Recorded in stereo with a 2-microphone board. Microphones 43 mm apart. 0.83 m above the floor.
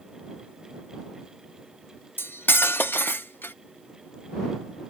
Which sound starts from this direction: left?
Cutlery clinking, at 2.2 s.